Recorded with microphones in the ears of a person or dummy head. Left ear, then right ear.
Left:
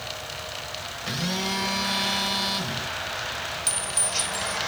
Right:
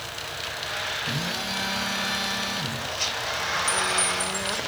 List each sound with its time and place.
1.1 s a phone buzzing: 85° left, 6 m
3.7 s a clink: 60° left (ahead or behind), 4.5 m